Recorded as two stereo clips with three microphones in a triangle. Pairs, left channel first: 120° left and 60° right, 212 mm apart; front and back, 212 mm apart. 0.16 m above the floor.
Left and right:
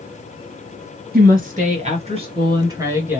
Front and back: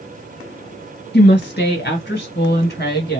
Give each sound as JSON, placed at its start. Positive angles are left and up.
{"t": 1.1, "sound": "a woman speaking", "azimuth_deg": -25, "distance_m": 2.5}